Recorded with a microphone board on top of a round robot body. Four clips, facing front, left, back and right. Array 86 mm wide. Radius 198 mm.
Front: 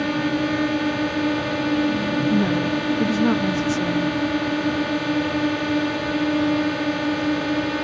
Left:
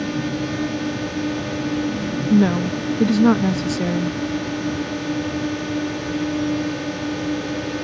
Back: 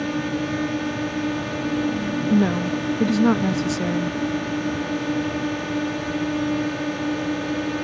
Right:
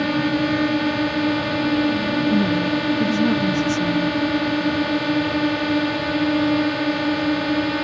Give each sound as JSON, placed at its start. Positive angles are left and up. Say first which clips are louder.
{"t": 0.0, "sound": "a drone", "louder": "right 4 dB, front 3 dB", "azimuth_deg": -65}
{"t": 2.3, "sound": "a woman speaking", "louder": "left 6 dB, back 3 dB", "azimuth_deg": 115}